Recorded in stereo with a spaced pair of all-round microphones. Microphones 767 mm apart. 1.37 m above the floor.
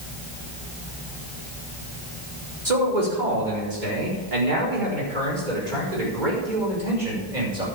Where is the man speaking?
65° right (ahead or behind), 4 m; by 7.7 s 85° right, 7 m.